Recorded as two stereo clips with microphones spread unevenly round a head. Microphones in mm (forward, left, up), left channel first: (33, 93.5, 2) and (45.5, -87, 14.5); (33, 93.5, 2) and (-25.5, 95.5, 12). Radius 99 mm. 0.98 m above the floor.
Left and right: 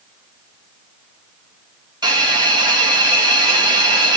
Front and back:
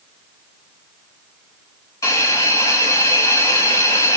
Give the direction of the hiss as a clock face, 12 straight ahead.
1 o'clock.